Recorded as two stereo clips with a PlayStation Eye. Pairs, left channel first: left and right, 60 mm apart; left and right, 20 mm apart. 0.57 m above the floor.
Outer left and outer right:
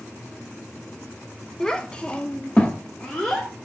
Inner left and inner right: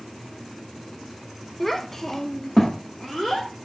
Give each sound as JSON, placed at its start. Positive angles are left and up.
{"t": 1.6, "sound": "a child speaking", "side_deg": 10, "distance_m": 0.7}